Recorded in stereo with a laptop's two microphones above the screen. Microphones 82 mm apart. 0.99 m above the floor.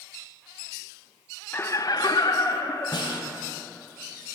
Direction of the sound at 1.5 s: 25° left (ahead or behind).